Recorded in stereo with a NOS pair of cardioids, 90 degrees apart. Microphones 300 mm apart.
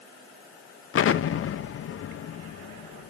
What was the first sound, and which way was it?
An explosion, 45° left.